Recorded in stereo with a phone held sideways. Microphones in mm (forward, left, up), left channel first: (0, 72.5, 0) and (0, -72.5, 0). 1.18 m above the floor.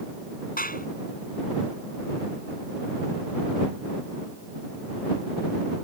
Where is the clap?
80° left.